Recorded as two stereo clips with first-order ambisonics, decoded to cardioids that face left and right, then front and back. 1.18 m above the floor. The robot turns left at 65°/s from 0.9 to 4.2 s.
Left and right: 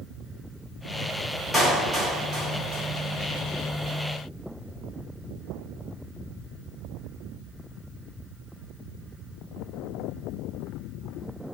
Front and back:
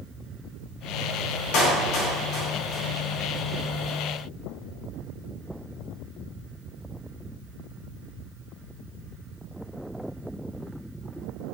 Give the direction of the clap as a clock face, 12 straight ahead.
12 o'clock.